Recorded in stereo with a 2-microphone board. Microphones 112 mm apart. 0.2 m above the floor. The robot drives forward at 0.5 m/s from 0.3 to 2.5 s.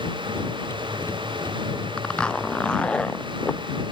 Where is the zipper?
10° left (ahead or behind).